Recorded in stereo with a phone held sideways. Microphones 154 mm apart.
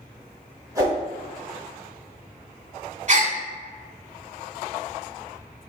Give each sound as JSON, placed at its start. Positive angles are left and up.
{"t": 0.8, "sound": "a whoosh", "side_deg": -20, "distance_m": 2.5}
{"t": 3.1, "sound": "a gasp", "side_deg": -50, "distance_m": 1.4}